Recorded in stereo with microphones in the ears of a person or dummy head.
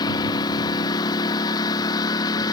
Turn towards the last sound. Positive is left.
turn(degrees=20)  # may be behind; listen again after turning